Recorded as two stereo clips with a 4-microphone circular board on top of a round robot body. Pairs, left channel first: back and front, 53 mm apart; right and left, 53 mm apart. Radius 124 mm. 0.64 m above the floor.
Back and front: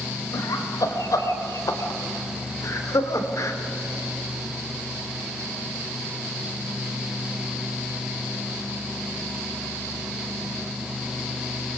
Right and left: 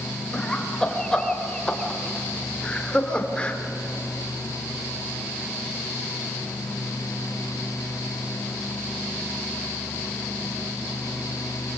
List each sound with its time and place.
0.3 s laughter: 170° right, 4.5 m; by 3.6 s 160° right, 3 m